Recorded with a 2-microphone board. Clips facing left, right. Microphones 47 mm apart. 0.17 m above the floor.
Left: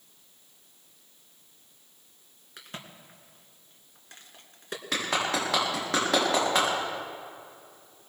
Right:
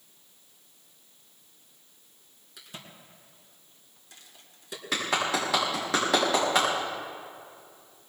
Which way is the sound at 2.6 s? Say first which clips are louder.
Left 3 dB; 50° left (ahead or behind).